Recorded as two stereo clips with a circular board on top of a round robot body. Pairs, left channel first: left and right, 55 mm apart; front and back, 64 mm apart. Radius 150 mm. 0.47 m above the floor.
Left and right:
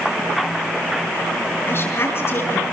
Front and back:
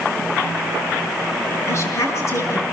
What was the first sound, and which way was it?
A woman speaking, 45° left.